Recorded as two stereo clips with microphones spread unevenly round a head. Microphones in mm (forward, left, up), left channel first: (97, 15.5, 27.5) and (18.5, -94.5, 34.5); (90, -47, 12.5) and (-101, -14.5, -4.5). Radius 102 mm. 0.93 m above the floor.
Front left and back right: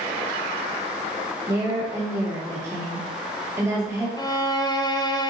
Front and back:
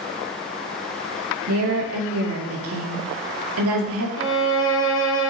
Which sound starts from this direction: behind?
A woman speaking, at 1.5 s.